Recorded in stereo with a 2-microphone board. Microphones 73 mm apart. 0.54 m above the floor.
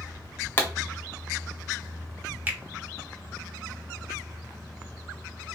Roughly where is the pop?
Left.